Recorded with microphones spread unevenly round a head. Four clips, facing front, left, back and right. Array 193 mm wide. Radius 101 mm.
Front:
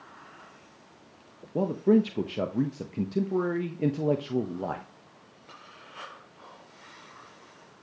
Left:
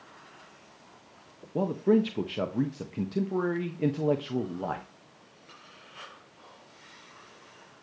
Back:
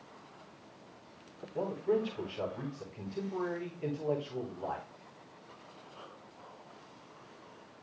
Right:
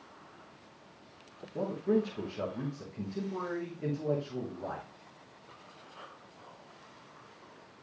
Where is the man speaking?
35° left, 1.0 m.